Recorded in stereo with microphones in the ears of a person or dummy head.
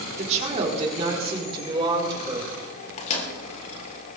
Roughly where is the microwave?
Left.